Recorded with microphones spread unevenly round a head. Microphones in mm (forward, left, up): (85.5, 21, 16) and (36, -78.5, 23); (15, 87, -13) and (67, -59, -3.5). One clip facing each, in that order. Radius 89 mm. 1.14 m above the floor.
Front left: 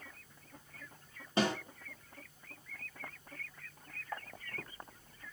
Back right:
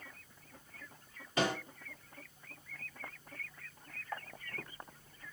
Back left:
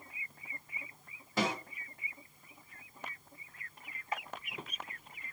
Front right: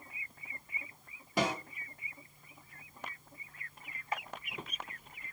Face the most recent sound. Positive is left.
turn(degrees=5)